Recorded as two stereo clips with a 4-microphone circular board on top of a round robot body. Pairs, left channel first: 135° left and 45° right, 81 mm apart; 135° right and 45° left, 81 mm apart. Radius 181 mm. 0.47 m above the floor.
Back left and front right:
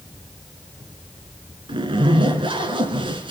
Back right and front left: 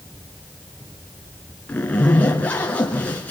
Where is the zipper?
60° right, 3 m.